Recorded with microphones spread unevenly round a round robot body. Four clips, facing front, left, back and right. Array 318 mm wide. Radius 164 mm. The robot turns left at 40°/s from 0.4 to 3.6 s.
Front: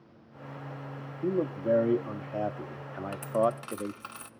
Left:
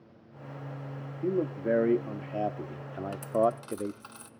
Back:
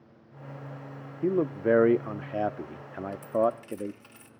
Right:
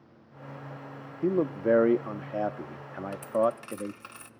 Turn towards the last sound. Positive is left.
turn(degrees=-5)